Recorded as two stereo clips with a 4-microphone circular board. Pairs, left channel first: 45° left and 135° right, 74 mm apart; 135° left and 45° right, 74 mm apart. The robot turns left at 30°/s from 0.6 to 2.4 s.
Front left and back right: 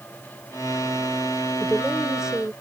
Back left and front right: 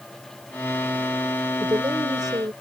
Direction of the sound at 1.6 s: 35° right.